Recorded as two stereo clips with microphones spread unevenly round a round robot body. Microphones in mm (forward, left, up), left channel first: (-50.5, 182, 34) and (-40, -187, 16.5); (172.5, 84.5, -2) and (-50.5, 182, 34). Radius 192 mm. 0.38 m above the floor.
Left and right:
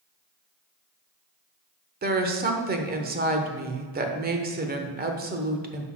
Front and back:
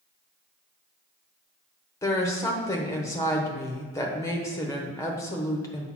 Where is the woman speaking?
70° right, 0.8 m.